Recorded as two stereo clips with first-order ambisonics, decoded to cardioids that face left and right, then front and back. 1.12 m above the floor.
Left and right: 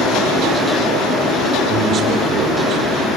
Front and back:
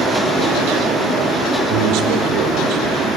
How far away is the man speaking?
About 4 m.